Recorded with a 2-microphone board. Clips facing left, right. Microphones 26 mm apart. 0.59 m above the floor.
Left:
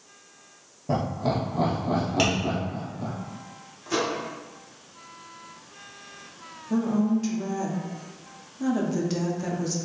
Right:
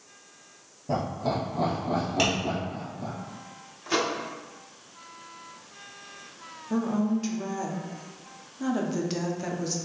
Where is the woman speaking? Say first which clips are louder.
Left 2 dB; 15° right (ahead or behind), 0.6 m.